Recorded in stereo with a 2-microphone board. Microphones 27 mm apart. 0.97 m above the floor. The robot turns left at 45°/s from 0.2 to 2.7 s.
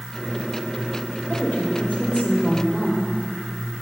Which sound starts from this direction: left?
A woman speaking, at 1.3 s.